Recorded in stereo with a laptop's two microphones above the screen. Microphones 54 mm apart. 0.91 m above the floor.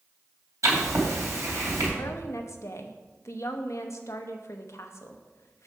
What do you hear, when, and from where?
0.6 s writing: 75° right (ahead or behind), 2.5 m
2.0 s a woman speaking: 65° left (ahead or behind), 0.8 m